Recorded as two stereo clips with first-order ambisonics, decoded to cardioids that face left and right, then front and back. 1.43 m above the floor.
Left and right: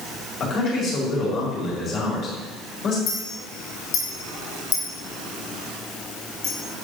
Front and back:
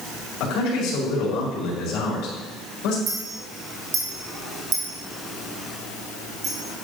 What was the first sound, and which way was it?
A man speaking, 35° left.